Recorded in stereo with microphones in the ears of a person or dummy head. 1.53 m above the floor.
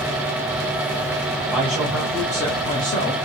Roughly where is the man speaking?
Centre.